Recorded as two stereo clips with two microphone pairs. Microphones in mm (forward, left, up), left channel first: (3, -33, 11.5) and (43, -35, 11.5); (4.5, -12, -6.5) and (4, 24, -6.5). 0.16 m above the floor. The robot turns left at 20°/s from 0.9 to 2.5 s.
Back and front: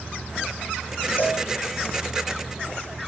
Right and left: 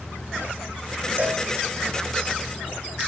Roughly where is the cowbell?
Behind left.